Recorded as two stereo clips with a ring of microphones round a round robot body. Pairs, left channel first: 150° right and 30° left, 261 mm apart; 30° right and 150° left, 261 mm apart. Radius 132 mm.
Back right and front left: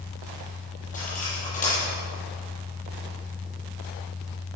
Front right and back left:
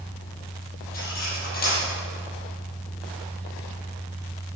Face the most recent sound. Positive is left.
turn(degrees=-90)